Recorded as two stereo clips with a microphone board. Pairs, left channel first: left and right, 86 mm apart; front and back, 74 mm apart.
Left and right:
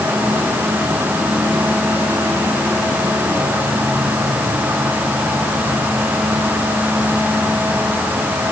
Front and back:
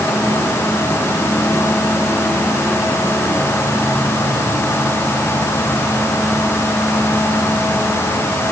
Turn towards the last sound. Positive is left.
No sound to turn to.